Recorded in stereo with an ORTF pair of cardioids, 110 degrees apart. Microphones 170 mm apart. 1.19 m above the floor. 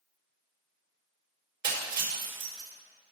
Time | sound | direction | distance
1.6 | breaking glass | 60° right | 4 m